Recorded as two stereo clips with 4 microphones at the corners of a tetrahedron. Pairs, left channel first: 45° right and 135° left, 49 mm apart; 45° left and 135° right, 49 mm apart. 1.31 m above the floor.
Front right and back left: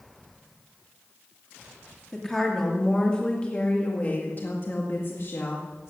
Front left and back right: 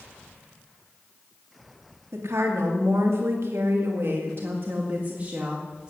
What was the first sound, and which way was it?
A woman speaking, 130° right.